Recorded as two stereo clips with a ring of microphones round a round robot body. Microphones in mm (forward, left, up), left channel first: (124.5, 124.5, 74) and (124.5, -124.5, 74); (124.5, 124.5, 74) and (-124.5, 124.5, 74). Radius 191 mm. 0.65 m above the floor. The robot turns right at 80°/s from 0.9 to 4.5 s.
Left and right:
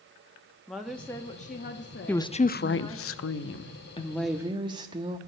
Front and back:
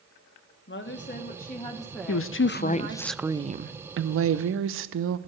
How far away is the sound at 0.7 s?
About 1.4 m.